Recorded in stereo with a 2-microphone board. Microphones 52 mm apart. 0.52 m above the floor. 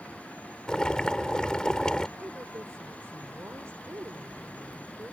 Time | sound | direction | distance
0.7 | boiling | 15° left (ahead or behind) | ?
2.2 | a woman speaking | 55° right (ahead or behind) | ?